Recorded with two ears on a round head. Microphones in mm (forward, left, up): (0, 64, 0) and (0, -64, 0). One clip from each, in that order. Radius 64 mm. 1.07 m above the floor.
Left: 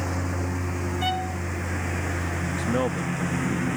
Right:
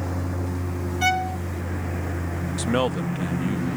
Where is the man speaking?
60° right (ahead or behind).